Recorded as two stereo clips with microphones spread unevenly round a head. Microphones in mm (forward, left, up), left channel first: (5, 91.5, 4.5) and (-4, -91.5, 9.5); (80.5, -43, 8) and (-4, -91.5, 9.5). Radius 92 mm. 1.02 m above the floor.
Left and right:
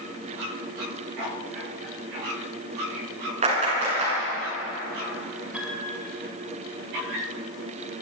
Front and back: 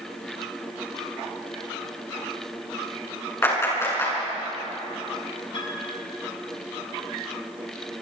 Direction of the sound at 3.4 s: 35° right.